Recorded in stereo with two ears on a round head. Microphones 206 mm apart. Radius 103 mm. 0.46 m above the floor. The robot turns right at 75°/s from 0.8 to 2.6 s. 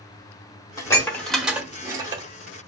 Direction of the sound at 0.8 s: 15° left (ahead or behind).